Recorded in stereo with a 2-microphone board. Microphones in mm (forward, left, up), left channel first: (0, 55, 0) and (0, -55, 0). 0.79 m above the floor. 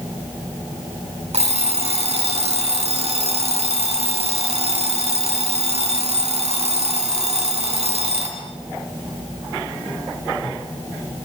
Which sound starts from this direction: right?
An alarm clock, at 1.3 s.